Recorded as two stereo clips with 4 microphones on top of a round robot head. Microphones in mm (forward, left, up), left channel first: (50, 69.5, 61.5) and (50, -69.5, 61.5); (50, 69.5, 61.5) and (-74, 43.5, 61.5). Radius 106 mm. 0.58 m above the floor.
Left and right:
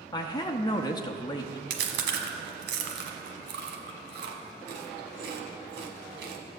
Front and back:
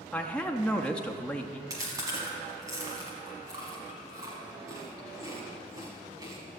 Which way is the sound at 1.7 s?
95° right.